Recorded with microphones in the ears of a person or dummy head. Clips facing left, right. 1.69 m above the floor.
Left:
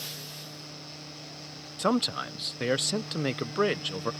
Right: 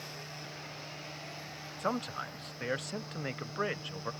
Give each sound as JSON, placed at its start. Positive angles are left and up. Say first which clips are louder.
{"t": 1.8, "sound": "a man speaking", "louder": "left 9 dB", "side_deg": 55}